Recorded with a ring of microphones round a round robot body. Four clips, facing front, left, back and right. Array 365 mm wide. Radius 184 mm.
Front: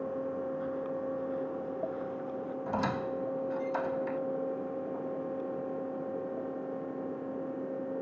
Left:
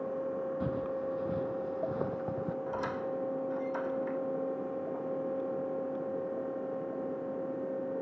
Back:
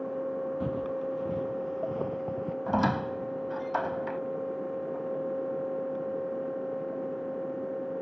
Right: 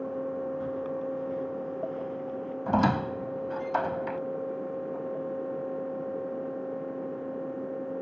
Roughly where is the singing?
No singing in this recording.